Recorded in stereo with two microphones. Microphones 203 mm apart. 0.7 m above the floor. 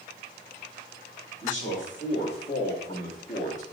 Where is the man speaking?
65° left (ahead or behind), 1.9 m; by 3.6 s 35° left (ahead or behind), 1.0 m.